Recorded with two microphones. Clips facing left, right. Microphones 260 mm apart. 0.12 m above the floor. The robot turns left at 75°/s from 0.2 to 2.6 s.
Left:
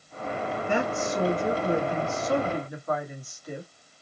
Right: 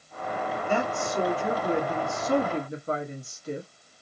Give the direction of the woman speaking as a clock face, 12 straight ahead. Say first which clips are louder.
Left 1 dB; 11 o'clock.